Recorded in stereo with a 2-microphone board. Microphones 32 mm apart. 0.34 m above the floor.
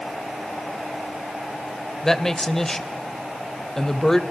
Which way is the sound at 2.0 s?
15° left (ahead or behind).